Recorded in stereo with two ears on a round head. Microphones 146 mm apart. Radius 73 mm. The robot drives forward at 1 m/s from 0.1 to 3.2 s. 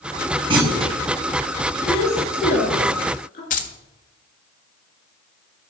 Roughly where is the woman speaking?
Left.